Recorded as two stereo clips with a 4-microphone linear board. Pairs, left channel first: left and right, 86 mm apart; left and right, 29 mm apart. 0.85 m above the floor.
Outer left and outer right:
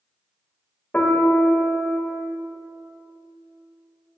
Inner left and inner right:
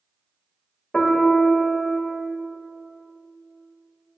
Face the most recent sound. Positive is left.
turn(degrees=20)  # may be behind; listen again after turning